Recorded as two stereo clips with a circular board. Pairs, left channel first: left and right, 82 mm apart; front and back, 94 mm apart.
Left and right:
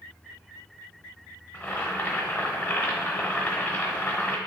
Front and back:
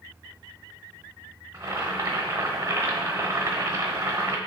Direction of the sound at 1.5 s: 140° left.